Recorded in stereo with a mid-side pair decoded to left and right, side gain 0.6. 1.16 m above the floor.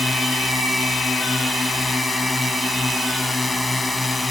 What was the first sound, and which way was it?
A drone, 15° left.